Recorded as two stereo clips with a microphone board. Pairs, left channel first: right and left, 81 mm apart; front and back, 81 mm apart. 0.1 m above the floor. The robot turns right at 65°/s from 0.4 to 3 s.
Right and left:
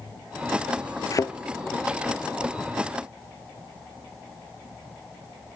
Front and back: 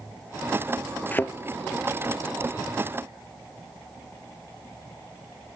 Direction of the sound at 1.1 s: 65° right.